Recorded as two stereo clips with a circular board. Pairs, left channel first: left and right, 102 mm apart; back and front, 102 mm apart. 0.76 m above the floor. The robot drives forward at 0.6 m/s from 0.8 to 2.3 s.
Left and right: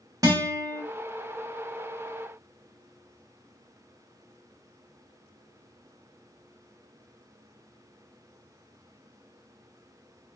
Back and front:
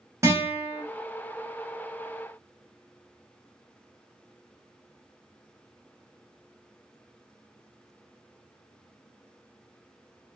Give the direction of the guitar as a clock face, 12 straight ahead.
2 o'clock.